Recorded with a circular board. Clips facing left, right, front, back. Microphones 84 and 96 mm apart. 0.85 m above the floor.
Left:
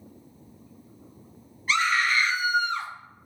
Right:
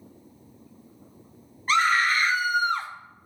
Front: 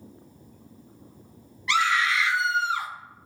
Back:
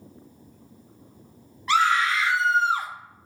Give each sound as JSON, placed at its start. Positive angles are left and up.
{"t": 1.7, "sound": "a scream", "azimuth_deg": -135, "distance_m": 1.0}